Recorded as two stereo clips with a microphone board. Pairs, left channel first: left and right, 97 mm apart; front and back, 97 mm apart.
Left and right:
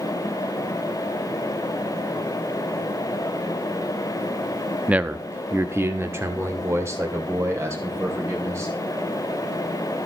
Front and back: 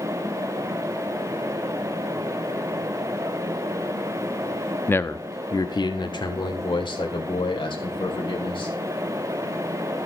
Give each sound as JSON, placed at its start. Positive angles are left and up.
{"t": 4.9, "sound": "a man speaking", "azimuth_deg": -30, "distance_m": 0.6}